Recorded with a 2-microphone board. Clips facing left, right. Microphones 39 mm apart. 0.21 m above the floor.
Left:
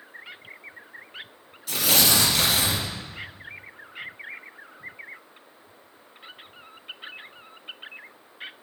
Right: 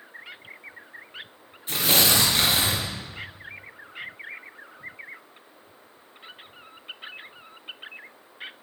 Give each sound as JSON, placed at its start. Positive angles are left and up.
{"t": 1.7, "sound": "tearing paper", "side_deg": -30, "distance_m": 3.5}